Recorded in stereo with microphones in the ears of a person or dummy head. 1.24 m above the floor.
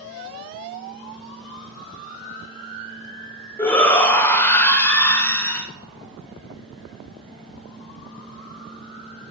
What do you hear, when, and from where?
3.6 s a shout: 15° left (ahead or behind), 0.5 m